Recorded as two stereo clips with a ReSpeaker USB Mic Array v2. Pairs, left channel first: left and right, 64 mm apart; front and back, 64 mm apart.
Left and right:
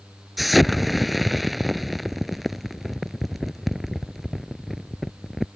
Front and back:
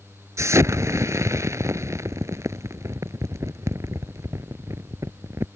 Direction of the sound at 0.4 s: Straight behind.